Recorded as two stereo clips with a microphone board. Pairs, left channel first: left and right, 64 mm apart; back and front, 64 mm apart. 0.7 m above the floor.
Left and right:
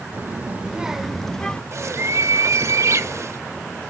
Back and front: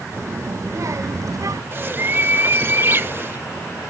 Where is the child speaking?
40° right, 1.0 m; by 1.6 s 15° left, 1.0 m.